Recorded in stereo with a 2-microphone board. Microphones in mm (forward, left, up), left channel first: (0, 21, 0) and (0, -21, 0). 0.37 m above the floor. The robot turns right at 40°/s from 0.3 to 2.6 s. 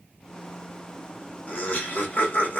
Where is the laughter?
60° left, 1.3 m; by 2.6 s 105° left, 1.3 m.